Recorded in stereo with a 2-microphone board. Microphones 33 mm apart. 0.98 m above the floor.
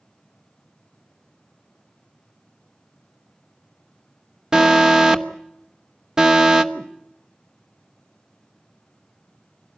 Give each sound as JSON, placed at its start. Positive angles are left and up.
{"t": 4.5, "sound": "an alarm", "side_deg": -15, "distance_m": 1.0}
{"t": 6.7, "sound": "a whoosh", "side_deg": -70, "distance_m": 2.5}